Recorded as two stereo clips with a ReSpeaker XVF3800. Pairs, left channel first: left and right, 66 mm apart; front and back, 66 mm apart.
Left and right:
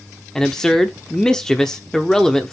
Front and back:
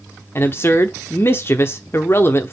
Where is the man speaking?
15° left, 0.9 m.